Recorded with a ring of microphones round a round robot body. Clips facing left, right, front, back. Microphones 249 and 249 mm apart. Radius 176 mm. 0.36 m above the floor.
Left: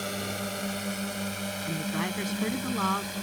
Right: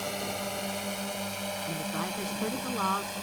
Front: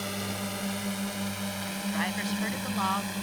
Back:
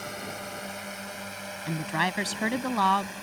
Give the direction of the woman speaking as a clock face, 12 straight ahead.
7 o'clock.